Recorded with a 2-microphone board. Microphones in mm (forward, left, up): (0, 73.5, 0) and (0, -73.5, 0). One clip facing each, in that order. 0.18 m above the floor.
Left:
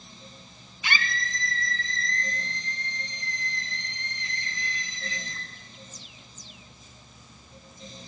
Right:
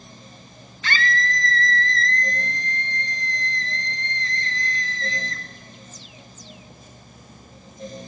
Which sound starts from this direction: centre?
A scream, at 0.8 s.